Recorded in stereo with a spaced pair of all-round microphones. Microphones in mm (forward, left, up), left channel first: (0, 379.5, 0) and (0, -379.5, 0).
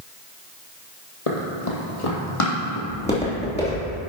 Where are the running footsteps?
50° left (ahead or behind), 2 m; by 2.8 s 40° left (ahead or behind), 3.5 m.